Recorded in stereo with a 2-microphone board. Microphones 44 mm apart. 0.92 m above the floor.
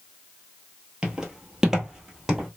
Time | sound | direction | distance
1.0 | footsteps | 20° right (ahead or behind) | 0.9 m